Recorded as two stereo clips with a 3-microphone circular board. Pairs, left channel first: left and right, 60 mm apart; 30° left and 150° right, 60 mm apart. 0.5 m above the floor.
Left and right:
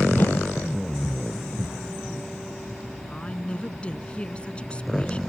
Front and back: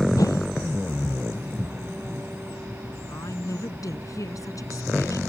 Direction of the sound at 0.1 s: 35° left.